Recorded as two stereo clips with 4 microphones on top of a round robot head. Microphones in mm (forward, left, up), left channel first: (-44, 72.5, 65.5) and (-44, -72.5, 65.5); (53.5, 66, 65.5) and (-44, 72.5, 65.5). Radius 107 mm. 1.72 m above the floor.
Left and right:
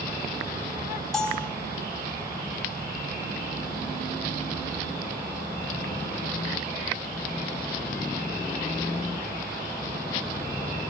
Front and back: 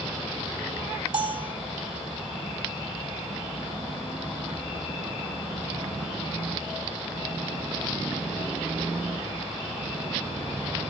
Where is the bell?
175° left, 1.4 m.